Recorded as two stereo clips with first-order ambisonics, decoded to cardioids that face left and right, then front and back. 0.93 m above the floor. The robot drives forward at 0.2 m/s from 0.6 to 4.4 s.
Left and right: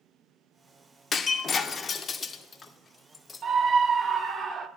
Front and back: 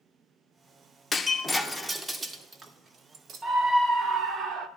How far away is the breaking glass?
About 0.5 m.